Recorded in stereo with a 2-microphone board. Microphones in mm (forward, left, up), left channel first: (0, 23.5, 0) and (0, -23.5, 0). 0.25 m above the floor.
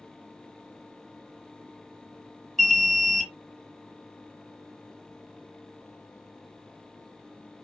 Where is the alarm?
10° left (ahead or behind), 1.4 m.